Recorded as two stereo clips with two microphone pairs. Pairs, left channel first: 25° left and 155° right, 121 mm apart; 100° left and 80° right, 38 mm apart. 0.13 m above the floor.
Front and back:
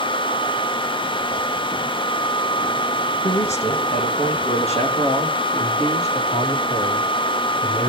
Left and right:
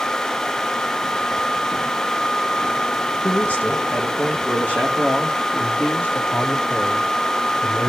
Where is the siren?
I don't hear a siren.